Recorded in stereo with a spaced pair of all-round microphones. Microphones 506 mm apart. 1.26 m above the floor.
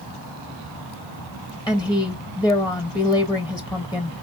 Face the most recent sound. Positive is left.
turn(degrees=10)  # may be behind; listen again after turning